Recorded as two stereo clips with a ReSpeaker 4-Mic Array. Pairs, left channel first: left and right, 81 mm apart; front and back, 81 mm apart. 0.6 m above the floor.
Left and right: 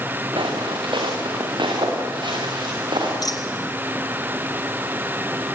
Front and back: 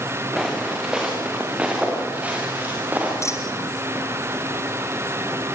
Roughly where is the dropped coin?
Ahead left.